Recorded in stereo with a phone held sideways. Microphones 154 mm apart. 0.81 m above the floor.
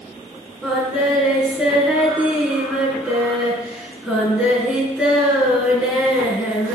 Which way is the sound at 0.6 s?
5° right (ahead or behind).